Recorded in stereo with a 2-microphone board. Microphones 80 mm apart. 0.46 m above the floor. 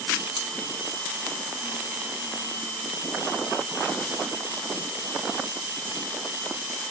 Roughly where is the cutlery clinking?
Right.